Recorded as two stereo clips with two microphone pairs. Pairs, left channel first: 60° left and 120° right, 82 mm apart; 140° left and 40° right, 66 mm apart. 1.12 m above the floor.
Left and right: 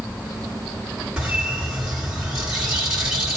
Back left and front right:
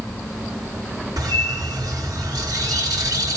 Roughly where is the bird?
Ahead right.